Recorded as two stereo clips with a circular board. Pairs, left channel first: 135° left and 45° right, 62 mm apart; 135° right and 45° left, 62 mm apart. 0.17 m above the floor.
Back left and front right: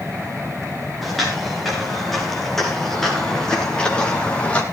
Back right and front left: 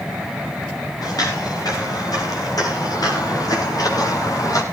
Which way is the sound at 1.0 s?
135° right.